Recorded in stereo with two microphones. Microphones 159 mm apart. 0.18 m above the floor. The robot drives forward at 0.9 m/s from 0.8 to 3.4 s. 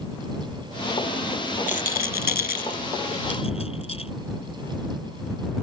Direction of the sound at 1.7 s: 55° left (ahead or behind).